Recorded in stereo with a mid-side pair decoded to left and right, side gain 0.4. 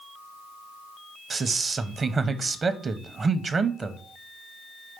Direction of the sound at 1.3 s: 45° right.